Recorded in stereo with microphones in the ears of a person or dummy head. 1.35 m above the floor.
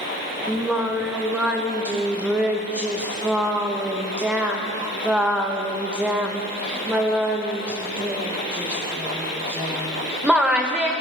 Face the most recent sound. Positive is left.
turn(degrees=-5)  # may be behind; listen again after turning